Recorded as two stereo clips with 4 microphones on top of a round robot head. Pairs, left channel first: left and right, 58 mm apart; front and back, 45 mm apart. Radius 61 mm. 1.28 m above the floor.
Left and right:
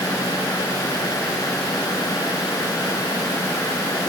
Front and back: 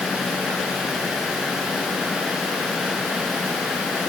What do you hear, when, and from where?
Only background noise.